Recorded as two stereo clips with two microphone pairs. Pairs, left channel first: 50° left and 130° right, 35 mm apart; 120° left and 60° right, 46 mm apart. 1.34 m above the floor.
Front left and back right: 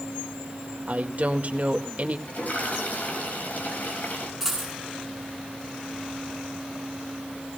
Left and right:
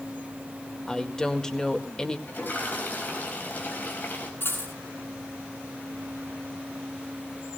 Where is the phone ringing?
I don't hear a phone ringing.